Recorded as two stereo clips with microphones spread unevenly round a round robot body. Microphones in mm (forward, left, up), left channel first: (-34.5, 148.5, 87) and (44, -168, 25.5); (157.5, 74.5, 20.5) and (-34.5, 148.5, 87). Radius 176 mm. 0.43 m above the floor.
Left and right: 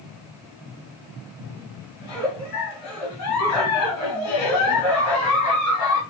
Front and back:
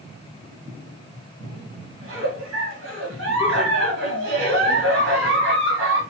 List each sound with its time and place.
2.0 s a giggle: 145° left, 1.1 m